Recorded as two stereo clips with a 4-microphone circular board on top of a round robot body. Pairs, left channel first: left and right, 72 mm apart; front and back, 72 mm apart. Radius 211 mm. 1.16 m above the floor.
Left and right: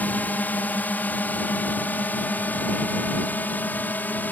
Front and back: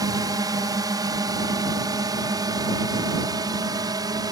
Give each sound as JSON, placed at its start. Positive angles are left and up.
{"t": 0.0, "sound": "a drone", "azimuth_deg": 155}